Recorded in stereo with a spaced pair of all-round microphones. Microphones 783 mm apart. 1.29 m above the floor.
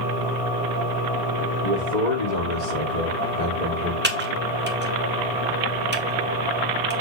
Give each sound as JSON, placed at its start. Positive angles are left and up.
{"t": 1.6, "sound": "a man speaking", "side_deg": 55, "distance_m": 2.5}
{"t": 4.0, "sound": "typing on a keyboard", "side_deg": -15, "distance_m": 1.1}